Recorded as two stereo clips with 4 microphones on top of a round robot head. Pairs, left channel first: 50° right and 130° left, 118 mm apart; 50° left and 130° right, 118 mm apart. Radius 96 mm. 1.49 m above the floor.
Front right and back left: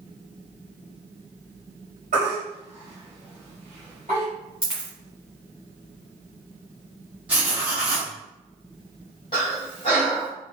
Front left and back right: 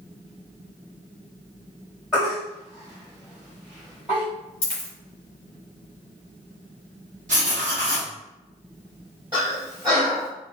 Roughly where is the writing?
Behind right.